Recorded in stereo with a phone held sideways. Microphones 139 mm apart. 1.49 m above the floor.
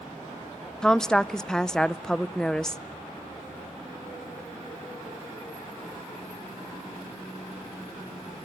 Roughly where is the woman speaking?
Centre.